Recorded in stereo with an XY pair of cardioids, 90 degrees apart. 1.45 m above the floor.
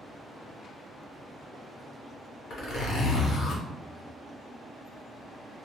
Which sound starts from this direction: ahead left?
A zipper, at 2.5 s.